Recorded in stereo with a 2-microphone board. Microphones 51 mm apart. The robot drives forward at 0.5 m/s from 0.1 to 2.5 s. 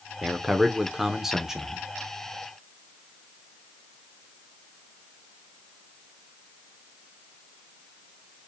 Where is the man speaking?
5° right (ahead or behind), 0.8 m.